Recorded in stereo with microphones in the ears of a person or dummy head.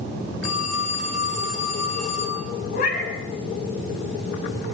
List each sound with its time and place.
0.4 s a phone ringing: 40° left (ahead or behind), 6.5 m
2.7 s a cat meowing: 55° left (ahead or behind), 5 m